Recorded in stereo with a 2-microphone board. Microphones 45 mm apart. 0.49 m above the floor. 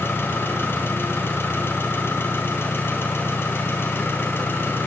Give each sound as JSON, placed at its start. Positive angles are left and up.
{"t": 0.0, "sound": "an engine running", "side_deg": 60, "distance_m": 4.0}